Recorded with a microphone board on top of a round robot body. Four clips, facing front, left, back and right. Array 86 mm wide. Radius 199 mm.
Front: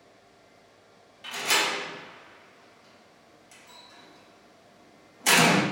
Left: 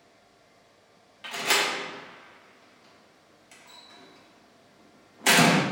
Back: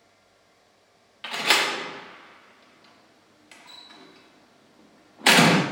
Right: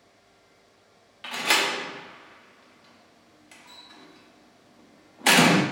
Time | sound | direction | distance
1.2 | a door slam | 165° right | 0.8 m